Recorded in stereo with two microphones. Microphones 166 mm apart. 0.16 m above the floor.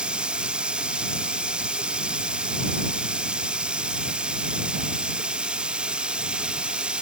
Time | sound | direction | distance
0.0 | running water | 5° right (ahead or behind) | ?